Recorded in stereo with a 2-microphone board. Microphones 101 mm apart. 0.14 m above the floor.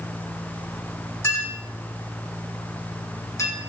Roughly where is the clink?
Left.